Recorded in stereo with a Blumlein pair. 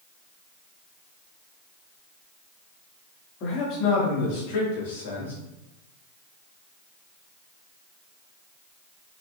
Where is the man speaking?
35° left, 3 m; by 5.3 s 60° left, 3 m.